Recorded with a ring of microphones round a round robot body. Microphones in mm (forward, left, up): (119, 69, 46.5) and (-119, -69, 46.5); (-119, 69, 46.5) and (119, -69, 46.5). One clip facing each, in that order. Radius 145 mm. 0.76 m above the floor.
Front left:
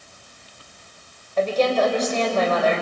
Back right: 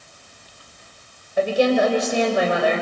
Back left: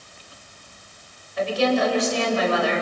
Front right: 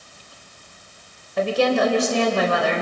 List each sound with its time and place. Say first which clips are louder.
1.4 s a woman speaking: back right 2 dB, front right 2 dB; 70° right, 3 m